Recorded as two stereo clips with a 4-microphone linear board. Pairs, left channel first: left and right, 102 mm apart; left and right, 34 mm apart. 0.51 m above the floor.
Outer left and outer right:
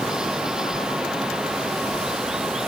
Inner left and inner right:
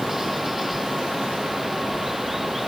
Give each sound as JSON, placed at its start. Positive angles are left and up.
{"t": 0.0, "sound": "running water", "side_deg": -5}